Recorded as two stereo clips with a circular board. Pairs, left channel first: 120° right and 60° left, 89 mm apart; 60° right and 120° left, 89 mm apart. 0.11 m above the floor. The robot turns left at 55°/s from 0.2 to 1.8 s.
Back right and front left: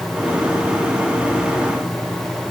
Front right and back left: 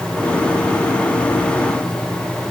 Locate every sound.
Only background noise.